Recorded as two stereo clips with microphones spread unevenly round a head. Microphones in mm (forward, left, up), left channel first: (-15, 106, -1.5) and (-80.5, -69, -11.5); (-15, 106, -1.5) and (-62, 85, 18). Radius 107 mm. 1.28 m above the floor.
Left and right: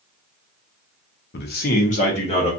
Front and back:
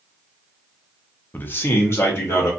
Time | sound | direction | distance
1.3 | a man speaking | 40° left | 0.5 m